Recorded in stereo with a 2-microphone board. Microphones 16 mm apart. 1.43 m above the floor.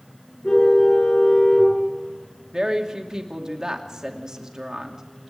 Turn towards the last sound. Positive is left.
turn(degrees=-35)  # may be behind; listen again after turning